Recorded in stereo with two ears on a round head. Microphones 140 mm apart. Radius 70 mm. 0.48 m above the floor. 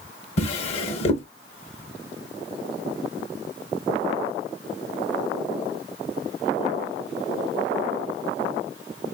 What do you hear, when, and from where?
0.4 s a drawer: 40° left (ahead or behind), 0.7 m